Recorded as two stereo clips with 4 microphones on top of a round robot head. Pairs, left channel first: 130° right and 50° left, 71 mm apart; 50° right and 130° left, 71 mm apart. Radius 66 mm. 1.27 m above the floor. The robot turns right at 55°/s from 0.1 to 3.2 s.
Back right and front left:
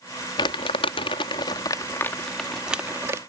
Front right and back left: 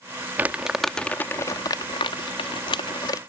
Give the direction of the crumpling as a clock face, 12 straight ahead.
5 o'clock.